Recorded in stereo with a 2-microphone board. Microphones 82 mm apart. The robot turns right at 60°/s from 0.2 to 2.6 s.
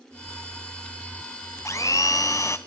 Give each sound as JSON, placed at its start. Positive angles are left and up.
{"t": 1.6, "sound": "a blender", "azimuth_deg": 65, "distance_m": 0.7}